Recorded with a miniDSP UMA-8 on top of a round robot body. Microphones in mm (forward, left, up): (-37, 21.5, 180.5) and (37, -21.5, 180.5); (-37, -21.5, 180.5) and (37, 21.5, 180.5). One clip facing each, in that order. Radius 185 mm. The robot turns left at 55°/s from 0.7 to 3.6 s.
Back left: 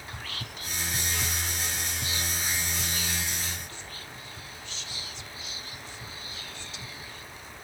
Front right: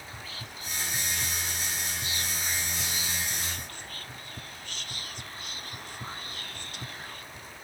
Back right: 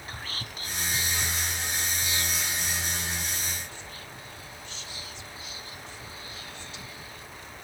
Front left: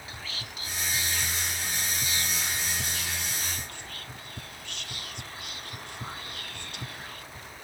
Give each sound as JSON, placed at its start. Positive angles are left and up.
{"t": 0.1, "sound": "whispering", "azimuth_deg": 165, "distance_m": 1.0}